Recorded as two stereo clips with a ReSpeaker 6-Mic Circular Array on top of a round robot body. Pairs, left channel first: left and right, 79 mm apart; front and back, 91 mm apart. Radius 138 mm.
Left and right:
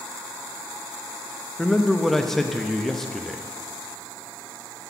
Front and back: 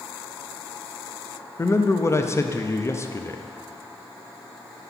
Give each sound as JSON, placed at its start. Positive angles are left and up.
{"t": 1.6, "sound": "a man speaking", "azimuth_deg": 10, "distance_m": 0.8}